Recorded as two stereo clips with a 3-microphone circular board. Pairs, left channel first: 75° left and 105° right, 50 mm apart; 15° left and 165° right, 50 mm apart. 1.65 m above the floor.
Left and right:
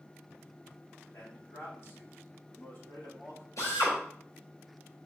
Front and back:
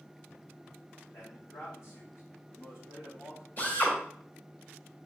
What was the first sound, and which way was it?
A man speaking, 35° left.